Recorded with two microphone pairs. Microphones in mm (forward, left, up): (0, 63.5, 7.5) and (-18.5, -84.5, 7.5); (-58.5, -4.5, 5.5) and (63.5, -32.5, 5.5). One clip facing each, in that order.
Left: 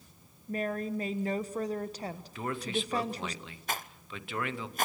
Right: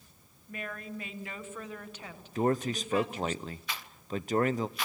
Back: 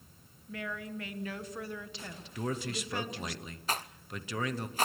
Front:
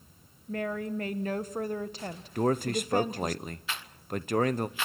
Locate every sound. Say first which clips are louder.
0.5 s a woman speaking: left 8 dB, front 8 dB; 30° left, 1.2 m
2.4 s a man speaking: right 6 dB, front 9 dB; 50° right, 0.8 m
3.7 s a rattle: even, even; 125° left, 0.6 m